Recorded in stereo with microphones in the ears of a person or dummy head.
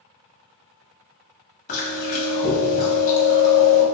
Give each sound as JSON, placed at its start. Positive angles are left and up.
{"t": 1.7, "sound": "chewing", "side_deg": 50, "distance_m": 1.3}